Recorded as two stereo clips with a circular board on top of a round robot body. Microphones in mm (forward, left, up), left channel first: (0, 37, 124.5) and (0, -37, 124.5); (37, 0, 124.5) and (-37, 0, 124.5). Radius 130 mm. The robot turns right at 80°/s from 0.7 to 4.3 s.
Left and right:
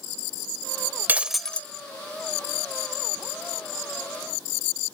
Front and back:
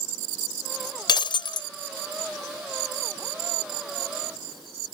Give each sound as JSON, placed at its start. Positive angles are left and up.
{"t": 1.1, "sound": "breaking glass", "azimuth_deg": -25}